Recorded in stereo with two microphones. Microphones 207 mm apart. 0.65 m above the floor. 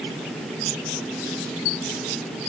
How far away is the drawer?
No drawer in this recording.